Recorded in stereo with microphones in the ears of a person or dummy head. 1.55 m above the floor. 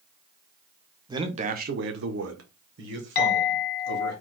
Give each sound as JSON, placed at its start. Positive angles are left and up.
{"t": 1.1, "sound": "a man speaking", "side_deg": -25, "distance_m": 0.6}
{"t": 3.1, "sound": "a clink", "side_deg": 60, "distance_m": 1.2}